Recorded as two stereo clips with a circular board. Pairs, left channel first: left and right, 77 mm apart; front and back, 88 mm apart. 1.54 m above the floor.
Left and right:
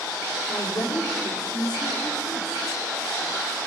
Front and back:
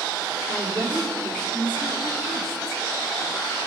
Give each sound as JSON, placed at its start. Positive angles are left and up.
{"t": 0.5, "sound": "a woman speaking", "azimuth_deg": 85, "distance_m": 4.5}